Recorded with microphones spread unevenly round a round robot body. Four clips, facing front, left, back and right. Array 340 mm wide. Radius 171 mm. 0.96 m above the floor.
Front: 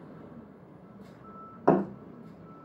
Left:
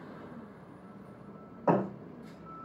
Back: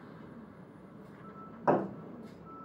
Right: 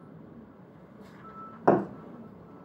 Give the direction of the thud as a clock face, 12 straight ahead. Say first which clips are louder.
Right 5 dB, front 4 dB; 2 o'clock.